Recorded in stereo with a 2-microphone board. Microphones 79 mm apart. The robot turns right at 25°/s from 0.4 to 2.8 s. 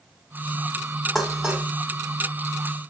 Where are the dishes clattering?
5° left (ahead or behind), 1.6 m; by 1.7 s 10° right (ahead or behind), 1.6 m.